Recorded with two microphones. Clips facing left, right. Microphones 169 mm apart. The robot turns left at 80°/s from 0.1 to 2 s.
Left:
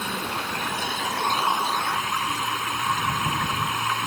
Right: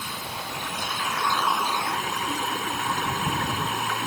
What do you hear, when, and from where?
0.0 s running water: 115° left; by 4.1 s 35° right